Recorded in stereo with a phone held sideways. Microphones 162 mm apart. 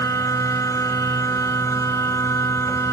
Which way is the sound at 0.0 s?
20° left (ahead or behind).